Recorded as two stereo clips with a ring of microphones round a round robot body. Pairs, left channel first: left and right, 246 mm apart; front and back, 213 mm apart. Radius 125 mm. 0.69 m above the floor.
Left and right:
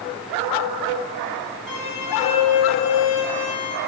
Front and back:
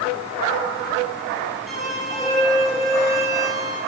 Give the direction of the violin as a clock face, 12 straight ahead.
9 o'clock.